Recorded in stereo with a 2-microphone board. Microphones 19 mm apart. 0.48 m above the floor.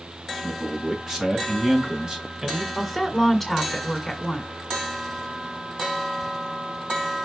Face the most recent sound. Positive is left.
turn(degrees=5)  # may be behind; listen again after turning